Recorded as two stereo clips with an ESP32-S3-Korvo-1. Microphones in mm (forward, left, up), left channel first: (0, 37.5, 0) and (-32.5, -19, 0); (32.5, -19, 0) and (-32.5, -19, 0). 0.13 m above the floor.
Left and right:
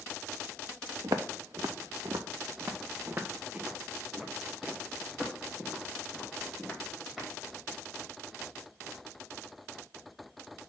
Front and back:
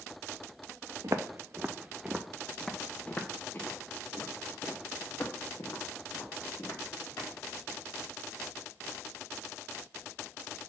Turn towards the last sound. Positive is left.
turn(degrees=-35)